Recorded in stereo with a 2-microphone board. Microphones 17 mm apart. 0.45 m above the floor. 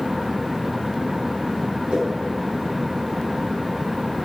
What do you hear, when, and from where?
1.9 s a whoosh: 80° right, 4 m